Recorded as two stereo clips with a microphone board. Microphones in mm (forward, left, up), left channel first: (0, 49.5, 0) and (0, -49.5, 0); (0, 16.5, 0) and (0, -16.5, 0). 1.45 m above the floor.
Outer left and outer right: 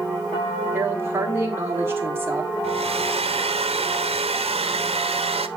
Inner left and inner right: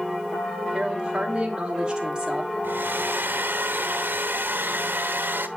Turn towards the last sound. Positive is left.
turn(degrees=-85)